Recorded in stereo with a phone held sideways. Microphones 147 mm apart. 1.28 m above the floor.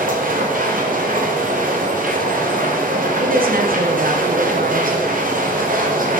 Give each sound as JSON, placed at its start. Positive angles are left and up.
{"t": 0.0, "sound": "a machine running", "side_deg": -70, "distance_m": 0.9}
{"t": 3.2, "sound": "a woman speaking", "side_deg": -80, "distance_m": 0.8}